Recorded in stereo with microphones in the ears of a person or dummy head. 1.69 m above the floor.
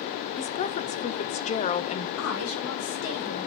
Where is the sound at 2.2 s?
85° left, 6 m.